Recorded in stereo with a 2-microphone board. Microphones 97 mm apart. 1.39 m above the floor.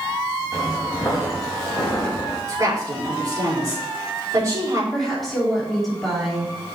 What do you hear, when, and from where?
0.5 s footsteps: centre (ahead or behind), 3.5 m
2.5 s a woman speaking: 35° right (ahead or behind), 4 m
4.9 s a woman speaking: centre (ahead or behind), 3 m